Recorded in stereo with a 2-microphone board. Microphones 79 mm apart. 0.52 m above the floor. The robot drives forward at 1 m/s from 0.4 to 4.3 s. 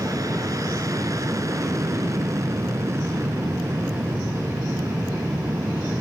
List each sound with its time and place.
0.0 s an aircraft: 45° right (ahead or behind); by 6.0 s 30° right (ahead or behind)